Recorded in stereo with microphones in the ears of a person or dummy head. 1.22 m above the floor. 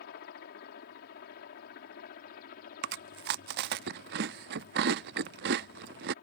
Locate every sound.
0.0 s a helicopter: 55° left (ahead or behind); by 6.2 s 50° left (ahead or behind)
2.8 s chewing: 55° right (ahead or behind)